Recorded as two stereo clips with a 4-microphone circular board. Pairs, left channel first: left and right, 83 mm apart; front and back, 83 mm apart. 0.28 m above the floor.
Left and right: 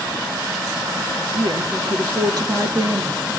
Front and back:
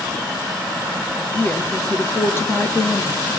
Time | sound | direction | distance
1.3 | a woman speaking | 70° right | 4 m